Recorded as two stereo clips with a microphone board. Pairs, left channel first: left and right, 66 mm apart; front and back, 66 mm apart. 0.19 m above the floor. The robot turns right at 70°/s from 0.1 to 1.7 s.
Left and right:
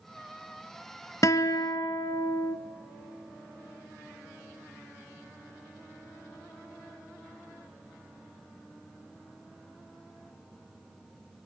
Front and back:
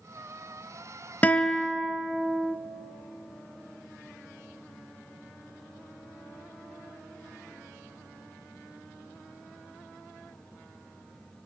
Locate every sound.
1.2 s a guitar: 60° left, 0.9 m; by 2.6 s 95° left, 0.9 m